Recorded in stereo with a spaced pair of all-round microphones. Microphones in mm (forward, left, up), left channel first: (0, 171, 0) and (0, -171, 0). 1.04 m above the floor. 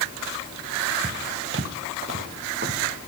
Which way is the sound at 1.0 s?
30° right (ahead or behind).